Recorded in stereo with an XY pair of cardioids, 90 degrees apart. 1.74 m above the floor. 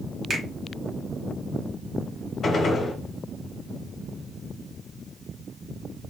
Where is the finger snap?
45° right, 1.5 m.